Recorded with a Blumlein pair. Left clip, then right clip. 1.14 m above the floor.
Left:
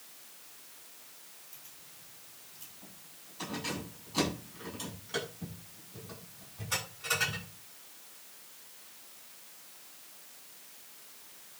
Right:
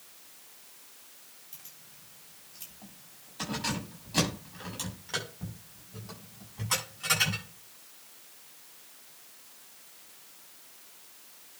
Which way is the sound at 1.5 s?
65° right.